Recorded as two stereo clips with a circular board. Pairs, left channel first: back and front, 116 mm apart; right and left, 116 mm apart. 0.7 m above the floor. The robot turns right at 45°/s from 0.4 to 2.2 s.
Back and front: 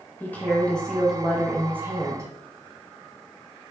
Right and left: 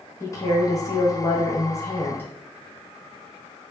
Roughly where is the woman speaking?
Behind right.